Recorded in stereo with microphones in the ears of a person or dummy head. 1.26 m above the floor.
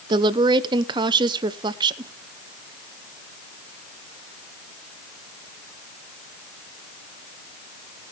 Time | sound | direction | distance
0.1 | a woman speaking | 25° right (ahead or behind) | 0.5 m